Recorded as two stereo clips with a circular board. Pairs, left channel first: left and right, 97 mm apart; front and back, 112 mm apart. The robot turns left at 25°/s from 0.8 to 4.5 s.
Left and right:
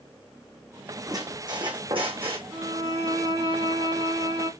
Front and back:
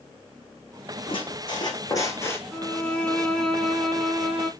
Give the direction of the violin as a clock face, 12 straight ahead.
2 o'clock.